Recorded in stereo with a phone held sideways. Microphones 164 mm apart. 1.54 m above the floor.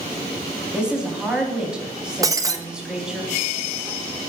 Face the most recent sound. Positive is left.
turn(degrees=-20)  # may be behind; listen again after turning